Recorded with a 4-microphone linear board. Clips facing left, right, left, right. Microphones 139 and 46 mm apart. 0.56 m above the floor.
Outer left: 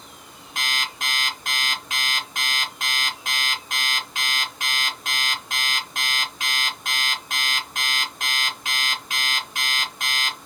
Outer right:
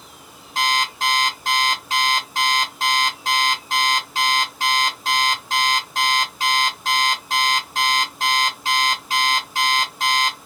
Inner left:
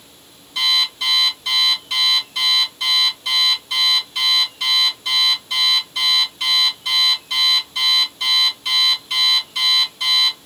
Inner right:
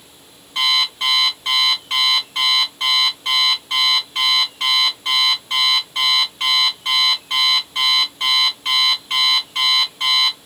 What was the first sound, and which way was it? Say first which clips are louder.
An alarm clock: outer right 9 dB, inner right 1 dB; 35° right (ahead or behind).